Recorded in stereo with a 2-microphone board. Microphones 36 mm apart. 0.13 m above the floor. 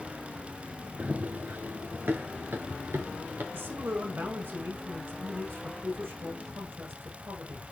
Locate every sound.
1.0 s running footsteps: 45° right (ahead or behind), 1.2 m; by 3.4 s 85° right, 3 m
3.5 s a man speaking: 75° right (ahead or behind), 7 m